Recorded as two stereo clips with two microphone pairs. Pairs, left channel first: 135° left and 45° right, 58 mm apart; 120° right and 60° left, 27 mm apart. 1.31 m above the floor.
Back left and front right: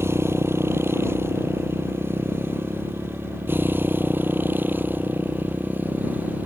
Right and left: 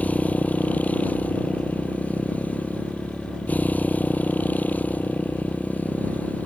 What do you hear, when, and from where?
0.0 s a motorcycle: 90° right; by 6.5 s 105° right